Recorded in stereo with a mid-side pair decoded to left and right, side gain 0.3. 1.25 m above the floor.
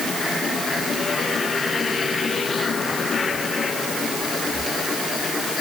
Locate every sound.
Only background noise.